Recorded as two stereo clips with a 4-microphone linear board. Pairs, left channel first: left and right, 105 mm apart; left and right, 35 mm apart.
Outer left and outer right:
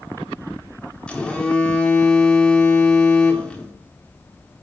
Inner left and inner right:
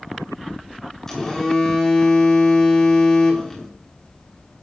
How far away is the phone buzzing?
About 1.4 m.